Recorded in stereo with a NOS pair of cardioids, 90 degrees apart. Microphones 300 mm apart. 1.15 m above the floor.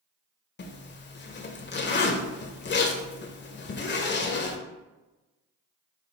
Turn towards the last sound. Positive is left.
turn(degrees=35)